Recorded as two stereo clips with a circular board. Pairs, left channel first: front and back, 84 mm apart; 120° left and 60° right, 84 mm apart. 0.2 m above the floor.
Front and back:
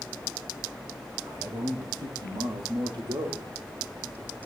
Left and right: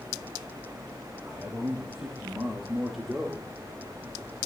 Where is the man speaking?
140° right, 6 m; by 3.5 s 150° right, 7 m.